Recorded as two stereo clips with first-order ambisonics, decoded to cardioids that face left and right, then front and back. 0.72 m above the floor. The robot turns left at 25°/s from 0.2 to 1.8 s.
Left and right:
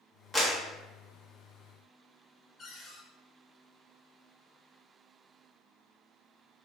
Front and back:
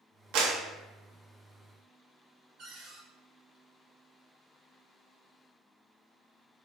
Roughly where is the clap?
Behind.